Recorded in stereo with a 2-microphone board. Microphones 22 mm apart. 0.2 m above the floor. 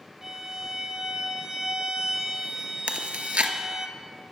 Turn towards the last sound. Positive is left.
turn(degrees=-80)